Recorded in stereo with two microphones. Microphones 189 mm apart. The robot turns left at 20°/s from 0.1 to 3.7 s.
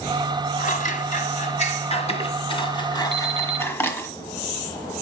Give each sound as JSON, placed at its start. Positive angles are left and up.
{"t": 0.6, "sound": "scissors", "azimuth_deg": 85, "distance_m": 1.7}
{"t": 3.1, "sound": "an alarm clock", "side_deg": -70, "distance_m": 3.5}